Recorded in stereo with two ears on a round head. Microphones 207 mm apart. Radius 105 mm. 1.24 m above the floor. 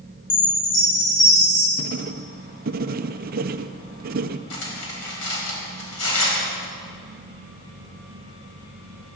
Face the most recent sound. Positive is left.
turn(degrees=65)  # may be behind; listen again after turning